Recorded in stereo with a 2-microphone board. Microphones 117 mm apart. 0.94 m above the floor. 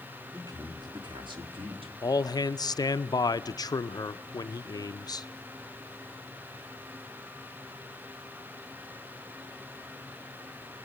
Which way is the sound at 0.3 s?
30° right (ahead or behind).